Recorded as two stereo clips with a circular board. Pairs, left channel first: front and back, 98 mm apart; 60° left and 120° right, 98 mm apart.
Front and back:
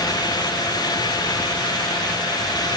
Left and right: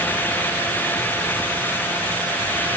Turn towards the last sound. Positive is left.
No sound to turn to.